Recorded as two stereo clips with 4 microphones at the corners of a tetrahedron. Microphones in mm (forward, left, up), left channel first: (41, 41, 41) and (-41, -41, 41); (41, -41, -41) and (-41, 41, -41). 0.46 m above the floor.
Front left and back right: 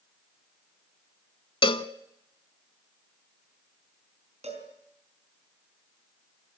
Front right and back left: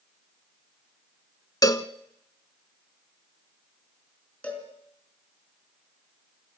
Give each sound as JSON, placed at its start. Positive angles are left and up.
{"t": 1.6, "sound": "a cowbell", "azimuth_deg": 10, "distance_m": 0.8}
{"t": 4.4, "sound": "a cowbell", "azimuth_deg": -125, "distance_m": 4.0}